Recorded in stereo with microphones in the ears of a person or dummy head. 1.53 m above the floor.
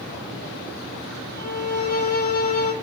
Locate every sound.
1.4 s a violin: 50° left (ahead or behind), 2.5 m